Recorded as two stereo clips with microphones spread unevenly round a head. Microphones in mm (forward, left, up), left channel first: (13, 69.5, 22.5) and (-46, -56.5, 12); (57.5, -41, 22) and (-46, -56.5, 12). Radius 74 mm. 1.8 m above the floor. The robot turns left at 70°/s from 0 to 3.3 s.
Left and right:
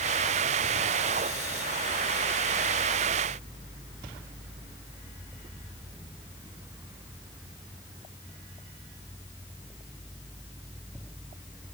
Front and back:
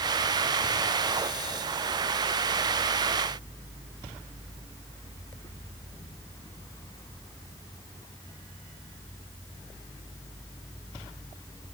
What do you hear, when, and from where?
Only background noise.